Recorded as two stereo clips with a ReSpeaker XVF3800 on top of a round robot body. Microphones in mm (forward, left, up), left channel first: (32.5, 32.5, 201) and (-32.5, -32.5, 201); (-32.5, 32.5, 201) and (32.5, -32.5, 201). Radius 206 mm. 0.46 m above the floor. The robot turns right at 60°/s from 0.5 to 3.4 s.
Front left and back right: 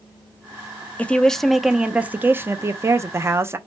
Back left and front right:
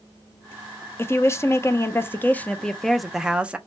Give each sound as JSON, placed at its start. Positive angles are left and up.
{"t": 1.0, "sound": "a woman speaking", "azimuth_deg": 105, "distance_m": 0.7}